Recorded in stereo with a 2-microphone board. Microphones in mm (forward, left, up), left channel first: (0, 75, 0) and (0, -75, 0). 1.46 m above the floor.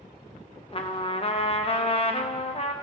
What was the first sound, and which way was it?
A trumpet, 40° left (ahead or behind).